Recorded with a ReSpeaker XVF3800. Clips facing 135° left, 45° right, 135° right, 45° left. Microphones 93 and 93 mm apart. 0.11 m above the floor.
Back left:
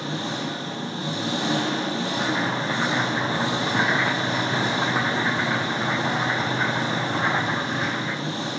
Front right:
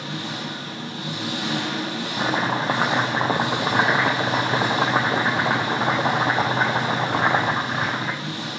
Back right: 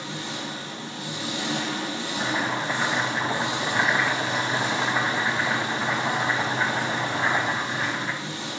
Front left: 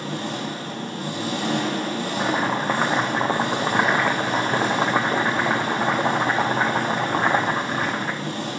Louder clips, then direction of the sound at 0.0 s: Back left 2 dB, front left 5 dB; 80° left.